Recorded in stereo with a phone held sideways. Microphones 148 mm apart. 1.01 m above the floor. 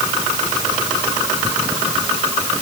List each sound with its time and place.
Only background noise.